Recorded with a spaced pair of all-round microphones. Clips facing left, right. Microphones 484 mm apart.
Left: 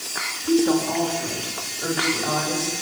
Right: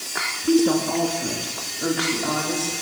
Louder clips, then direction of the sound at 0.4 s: Right 1 dB; 50° right (ahead or behind).